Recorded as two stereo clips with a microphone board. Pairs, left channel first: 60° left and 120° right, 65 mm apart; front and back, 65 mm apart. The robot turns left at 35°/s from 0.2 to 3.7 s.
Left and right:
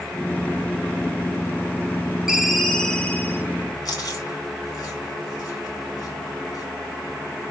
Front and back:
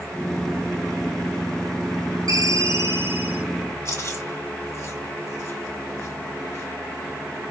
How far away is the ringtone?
About 0.8 m.